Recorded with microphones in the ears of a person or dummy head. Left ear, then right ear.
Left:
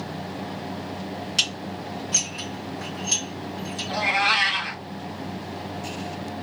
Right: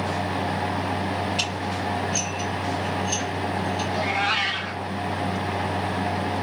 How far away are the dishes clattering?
About 2 m.